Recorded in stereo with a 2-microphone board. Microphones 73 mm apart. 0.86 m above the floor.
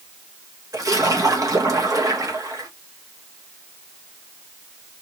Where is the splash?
55° right (ahead or behind), 1.4 m.